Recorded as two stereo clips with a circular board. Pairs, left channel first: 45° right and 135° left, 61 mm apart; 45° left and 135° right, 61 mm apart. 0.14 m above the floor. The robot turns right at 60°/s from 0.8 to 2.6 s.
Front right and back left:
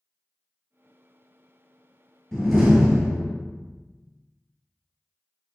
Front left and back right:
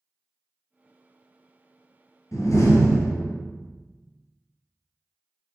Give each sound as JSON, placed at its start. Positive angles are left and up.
{"t": 2.3, "sound": "a door slam", "azimuth_deg": 35, "distance_m": 1.8}